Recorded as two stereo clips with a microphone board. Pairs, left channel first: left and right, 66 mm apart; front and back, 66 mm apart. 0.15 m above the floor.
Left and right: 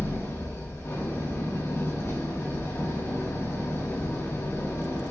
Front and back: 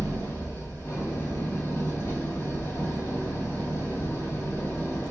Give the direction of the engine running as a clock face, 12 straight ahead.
10 o'clock.